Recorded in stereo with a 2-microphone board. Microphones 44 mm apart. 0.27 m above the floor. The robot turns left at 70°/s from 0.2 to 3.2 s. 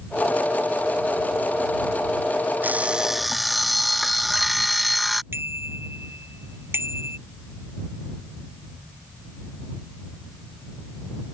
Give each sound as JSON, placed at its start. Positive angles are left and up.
{"t": 2.6, "sound": "an alarm clock", "azimuth_deg": -140}
{"t": 5.3, "sound": "a bicycle bell", "side_deg": -55}